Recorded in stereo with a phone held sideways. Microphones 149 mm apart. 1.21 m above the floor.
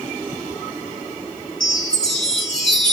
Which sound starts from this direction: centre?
A chime, at 1.6 s.